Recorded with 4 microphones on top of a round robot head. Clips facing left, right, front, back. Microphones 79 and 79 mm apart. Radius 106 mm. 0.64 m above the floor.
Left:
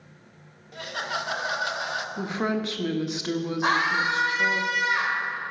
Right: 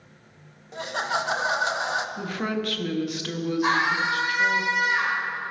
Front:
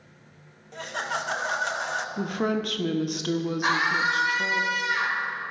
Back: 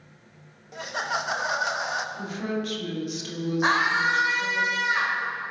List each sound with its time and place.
0.7 s laughter: 110° right, 1.0 m
2.2 s a woman speaking: 20° left, 1.2 m
3.6 s a scream: 125° left, 4 m